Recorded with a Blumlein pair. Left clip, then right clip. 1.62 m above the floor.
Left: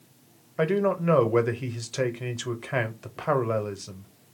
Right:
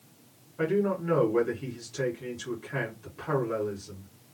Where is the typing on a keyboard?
No typing on a keyboard in this recording.